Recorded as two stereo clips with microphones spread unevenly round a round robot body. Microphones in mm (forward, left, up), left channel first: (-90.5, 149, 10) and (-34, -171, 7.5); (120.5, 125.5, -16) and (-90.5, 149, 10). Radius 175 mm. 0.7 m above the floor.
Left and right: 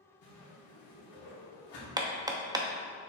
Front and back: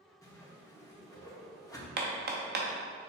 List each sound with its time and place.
0.2 s a whoosh: 65° left, 2.5 m
2.0 s hammering: 155° right, 0.7 m